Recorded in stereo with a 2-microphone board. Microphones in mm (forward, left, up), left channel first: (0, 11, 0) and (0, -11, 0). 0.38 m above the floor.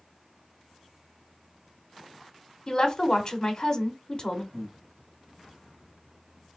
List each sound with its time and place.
2.7 s a woman speaking: 30° left (ahead or behind), 1.0 m
4.5 s breathing: 5° left (ahead or behind), 1.9 m